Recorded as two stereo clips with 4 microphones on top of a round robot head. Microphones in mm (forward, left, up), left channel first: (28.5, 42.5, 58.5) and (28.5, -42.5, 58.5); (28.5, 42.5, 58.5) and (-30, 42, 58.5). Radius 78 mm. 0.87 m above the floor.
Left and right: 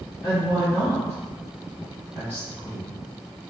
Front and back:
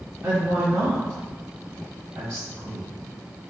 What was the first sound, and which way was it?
A woman speaking, 160° left.